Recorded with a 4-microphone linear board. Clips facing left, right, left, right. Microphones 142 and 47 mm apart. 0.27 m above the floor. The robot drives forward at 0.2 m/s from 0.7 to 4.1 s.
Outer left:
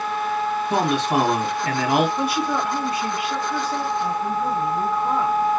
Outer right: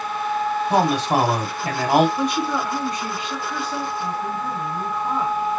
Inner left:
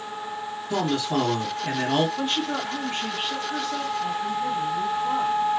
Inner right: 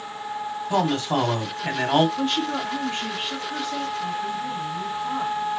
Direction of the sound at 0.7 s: 40° right (ahead or behind).